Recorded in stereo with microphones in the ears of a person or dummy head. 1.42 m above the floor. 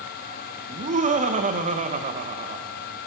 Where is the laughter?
35° right (ahead or behind), 0.9 m.